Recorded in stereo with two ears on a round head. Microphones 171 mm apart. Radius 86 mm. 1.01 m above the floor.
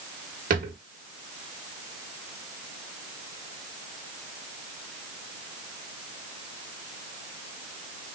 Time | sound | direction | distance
0.5 | a drawer | 50° right (ahead or behind) | 1.1 m